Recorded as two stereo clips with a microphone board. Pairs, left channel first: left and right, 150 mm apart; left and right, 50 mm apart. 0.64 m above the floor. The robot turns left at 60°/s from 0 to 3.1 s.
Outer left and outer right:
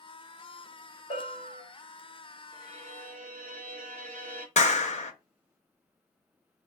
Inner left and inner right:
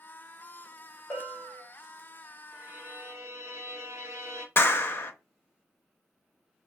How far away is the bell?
About 1.6 m.